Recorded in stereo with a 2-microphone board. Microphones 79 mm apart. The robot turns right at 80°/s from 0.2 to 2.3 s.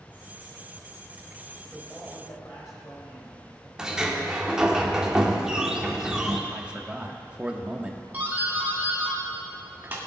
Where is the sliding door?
10° right (ahead or behind), 1.2 m.